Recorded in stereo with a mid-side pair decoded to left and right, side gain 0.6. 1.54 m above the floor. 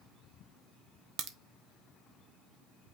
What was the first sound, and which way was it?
A crack, 60° right.